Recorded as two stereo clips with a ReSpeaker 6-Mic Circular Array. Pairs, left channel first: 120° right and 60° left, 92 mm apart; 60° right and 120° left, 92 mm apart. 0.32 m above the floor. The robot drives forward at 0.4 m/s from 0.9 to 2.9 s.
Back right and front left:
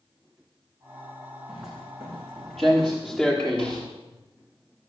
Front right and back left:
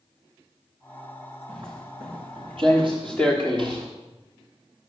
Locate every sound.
1.5 s footsteps: 145° left, 9.5 m; by 3.9 s 160° left, 8 m